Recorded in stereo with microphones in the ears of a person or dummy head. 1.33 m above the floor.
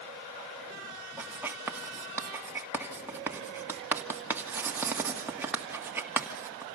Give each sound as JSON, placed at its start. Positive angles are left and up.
{"t": 1.2, "sound": "writing", "side_deg": -10, "distance_m": 1.7}